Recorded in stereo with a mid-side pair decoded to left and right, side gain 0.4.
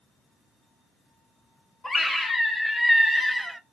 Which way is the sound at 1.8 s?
25° left.